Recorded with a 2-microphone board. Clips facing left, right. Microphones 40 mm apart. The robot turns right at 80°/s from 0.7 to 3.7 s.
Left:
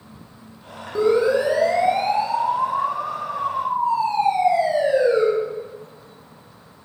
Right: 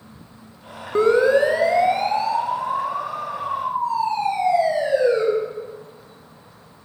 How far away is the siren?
About 2.5 m.